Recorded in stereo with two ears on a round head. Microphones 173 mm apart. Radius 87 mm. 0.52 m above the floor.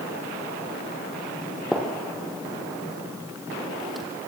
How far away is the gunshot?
About 4.5 m.